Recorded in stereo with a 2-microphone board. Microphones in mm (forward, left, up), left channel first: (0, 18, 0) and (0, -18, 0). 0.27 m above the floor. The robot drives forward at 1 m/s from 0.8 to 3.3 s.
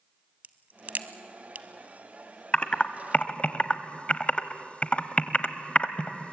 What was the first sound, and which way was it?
A crack, 50° right (ahead or behind).